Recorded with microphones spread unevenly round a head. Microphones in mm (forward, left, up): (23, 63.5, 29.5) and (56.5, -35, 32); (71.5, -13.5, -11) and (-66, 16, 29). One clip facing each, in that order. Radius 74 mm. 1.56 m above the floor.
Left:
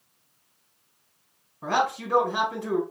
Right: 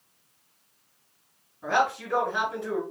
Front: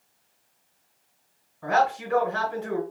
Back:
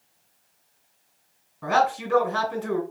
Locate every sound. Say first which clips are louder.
1.6 s a man speaking: even, back 1 dB; 140° left, 2.5 m